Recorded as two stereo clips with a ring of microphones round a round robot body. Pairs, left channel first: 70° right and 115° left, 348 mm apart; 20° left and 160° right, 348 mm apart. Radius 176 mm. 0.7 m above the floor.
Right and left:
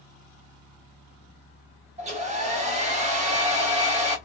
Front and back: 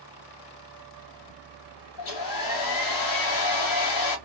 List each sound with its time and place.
2.0 s a hair dryer: 45° left, 0.9 m